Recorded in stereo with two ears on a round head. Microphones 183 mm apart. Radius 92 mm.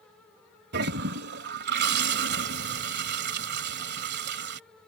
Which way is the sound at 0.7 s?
60° right (ahead or behind).